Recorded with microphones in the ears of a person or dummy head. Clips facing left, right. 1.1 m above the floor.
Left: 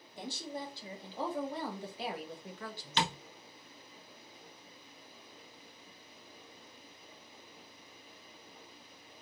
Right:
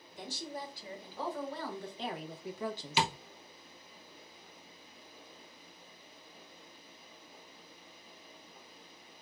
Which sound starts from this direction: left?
A woman speaking, at 0.2 s.